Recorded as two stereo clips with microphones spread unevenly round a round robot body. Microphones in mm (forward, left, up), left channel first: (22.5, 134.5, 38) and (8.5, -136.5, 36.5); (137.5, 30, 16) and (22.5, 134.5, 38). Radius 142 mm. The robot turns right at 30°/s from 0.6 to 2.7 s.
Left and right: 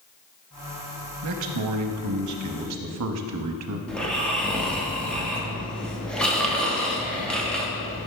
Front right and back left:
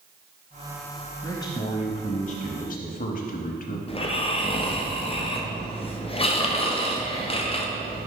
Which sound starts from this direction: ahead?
Snoring, at 3.9 s.